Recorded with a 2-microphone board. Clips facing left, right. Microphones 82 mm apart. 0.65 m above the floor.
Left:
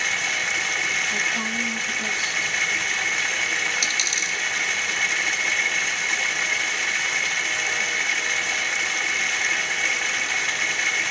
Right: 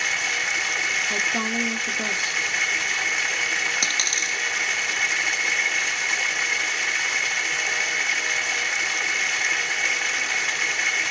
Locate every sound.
0.0 s running water: centre (ahead or behind), 0.8 m
1.1 s a woman speaking: 55° right (ahead or behind), 1.0 m
3.8 s a dropped coin: 55° right (ahead or behind), 1.1 m